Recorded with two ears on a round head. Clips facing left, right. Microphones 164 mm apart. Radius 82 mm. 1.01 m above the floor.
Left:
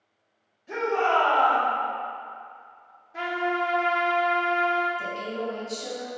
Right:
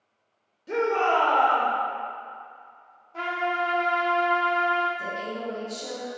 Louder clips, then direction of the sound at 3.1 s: Left 1 dB; 15° left (ahead or behind).